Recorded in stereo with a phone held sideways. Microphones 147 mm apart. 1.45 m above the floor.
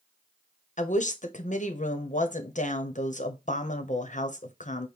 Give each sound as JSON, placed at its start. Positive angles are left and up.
{"t": 0.8, "sound": "a woman speaking", "side_deg": 55, "distance_m": 0.8}